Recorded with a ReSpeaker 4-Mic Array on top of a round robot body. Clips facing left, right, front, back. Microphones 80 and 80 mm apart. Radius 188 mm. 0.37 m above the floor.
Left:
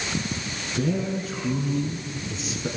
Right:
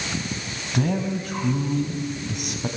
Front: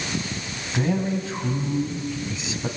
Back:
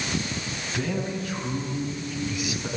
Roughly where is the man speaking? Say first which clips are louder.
Right 2 dB, front 5 dB; ahead right.